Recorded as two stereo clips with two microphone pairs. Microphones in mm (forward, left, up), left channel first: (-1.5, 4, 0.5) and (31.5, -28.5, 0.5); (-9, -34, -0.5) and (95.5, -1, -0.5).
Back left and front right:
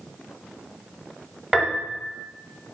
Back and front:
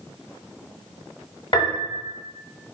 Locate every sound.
1.5 s a piano: 130° right, 0.8 m